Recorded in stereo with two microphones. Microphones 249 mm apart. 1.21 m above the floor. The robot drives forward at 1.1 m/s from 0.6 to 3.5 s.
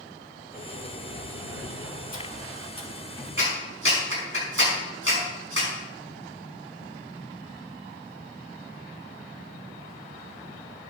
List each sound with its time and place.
0.5 s a sliding door: 35° left (ahead or behind), 1.3 m; by 3.3 s 20° left (ahead or behind), 2.5 m
3.4 s a clap: 55° right (ahead or behind), 5.5 m